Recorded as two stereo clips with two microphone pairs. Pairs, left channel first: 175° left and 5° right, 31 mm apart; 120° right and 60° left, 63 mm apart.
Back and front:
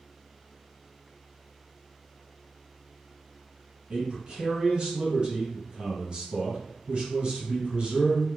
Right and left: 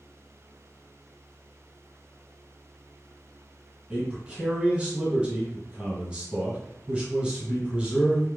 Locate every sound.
3.9 s a man speaking: 5° left, 1.6 m